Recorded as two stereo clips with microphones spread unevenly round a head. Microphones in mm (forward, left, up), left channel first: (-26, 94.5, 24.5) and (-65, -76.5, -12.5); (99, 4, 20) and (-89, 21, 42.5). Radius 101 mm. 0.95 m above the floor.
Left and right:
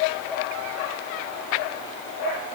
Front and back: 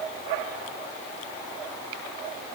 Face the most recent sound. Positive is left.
No sound to turn to.